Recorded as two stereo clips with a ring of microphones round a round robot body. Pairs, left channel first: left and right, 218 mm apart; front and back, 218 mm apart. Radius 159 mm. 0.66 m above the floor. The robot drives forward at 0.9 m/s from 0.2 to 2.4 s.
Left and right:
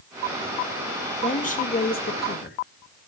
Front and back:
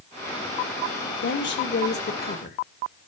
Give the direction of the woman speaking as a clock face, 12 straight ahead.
11 o'clock.